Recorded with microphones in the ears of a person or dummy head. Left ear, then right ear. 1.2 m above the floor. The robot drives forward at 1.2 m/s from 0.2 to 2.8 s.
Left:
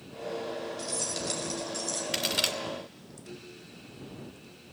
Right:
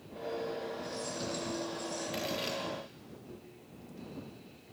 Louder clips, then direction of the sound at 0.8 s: Left 5 dB; 85° left.